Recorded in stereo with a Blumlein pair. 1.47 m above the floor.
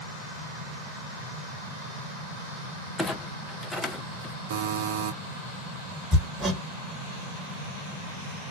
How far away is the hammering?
About 1.5 m.